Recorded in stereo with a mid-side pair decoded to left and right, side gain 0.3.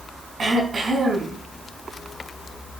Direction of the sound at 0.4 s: 60° right.